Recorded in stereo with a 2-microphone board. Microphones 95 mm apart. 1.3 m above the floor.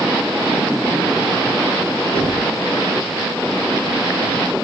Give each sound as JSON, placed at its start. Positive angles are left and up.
{"t": 2.1, "sound": "knocking", "side_deg": 10, "distance_m": 4.5}